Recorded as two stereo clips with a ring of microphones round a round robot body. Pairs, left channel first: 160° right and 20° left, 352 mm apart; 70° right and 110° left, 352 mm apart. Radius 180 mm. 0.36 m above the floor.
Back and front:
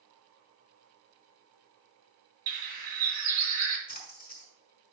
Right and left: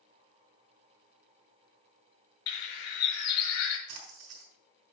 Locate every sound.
2.5 s a bird: 45° right, 2.5 m
3.9 s a splash: 135° left, 4 m